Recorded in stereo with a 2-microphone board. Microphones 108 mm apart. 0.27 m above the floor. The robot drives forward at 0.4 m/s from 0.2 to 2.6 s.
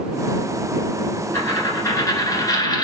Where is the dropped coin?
30° left (ahead or behind), 1.9 m; by 2.9 s 40° left (ahead or behind), 1.5 m.